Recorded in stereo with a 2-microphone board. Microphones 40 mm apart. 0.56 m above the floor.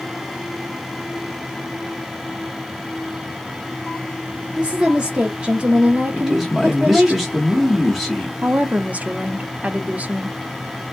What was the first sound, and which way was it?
A woman speaking, 25° right (ahead or behind).